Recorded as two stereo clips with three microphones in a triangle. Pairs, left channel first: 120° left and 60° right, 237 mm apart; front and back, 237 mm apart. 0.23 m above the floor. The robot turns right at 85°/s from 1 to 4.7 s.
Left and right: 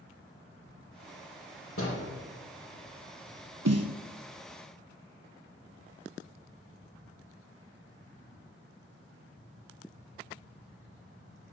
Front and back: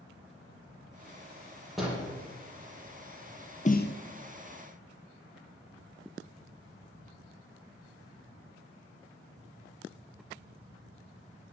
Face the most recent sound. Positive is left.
turn(degrees=30)